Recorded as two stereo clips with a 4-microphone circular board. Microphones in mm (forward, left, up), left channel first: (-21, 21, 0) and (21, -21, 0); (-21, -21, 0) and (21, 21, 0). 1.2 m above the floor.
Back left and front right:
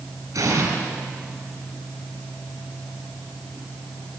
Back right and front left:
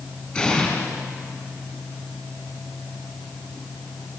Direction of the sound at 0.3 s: 65° right.